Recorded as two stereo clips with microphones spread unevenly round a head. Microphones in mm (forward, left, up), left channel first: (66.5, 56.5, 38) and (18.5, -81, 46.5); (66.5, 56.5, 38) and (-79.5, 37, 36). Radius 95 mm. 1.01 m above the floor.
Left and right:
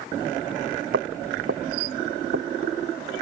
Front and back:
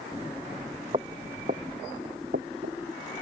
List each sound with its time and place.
0.9 s footsteps: 110° right; by 2.8 s 130° right